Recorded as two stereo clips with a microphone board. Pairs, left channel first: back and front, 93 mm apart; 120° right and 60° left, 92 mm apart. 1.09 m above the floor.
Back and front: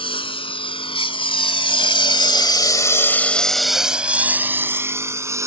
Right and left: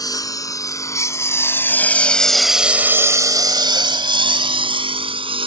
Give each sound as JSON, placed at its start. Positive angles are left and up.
{"t": 0.0, "sound": "a lawn mower", "azimuth_deg": -165}